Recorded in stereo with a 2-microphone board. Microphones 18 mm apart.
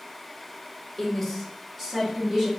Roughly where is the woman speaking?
Centre.